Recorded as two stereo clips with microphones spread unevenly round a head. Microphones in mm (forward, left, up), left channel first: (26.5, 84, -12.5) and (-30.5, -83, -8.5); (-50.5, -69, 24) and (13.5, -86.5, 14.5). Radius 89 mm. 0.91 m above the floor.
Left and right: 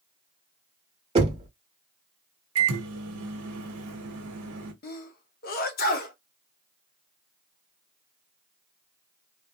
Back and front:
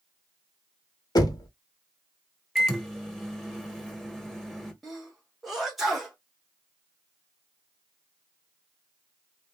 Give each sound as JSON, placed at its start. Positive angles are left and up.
{"t": 1.1, "sound": "knocking", "azimuth_deg": -170, "distance_m": 0.9}
{"t": 2.5, "sound": "a microwave", "azimuth_deg": -105, "distance_m": 1.1}
{"t": 4.8, "sound": "a sneeze", "azimuth_deg": 65, "distance_m": 0.8}